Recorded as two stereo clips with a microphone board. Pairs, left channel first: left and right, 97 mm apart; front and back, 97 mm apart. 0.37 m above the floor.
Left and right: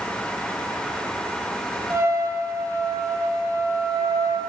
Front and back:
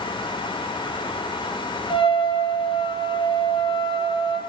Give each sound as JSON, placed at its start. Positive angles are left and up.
{"t": 1.9, "sound": "a trumpet", "azimuth_deg": -25, "distance_m": 3.0}